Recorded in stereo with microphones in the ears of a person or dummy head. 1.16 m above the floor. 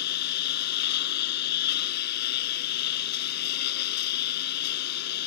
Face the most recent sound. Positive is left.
turn(degrees=50)  # may be behind; listen again after turning